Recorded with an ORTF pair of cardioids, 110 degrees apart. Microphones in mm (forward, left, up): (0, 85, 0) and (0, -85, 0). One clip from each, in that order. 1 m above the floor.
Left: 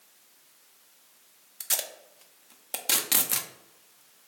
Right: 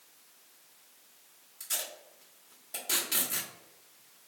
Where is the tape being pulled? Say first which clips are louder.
Left 5 dB; 60° left, 0.6 m.